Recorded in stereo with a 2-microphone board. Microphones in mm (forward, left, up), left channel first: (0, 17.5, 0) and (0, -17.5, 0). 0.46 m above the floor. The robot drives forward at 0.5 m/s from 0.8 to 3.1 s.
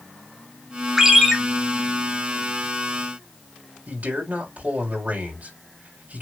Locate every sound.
1.0 s a ringtone: 15° right (ahead or behind), 1.4 m; by 1.4 s 10° right (ahead or behind), 1.6 m
3.9 s a man speaking: 55° right (ahead or behind), 3 m